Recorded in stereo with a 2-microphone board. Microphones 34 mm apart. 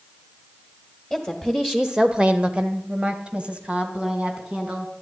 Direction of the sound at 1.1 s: 5° right (ahead or behind).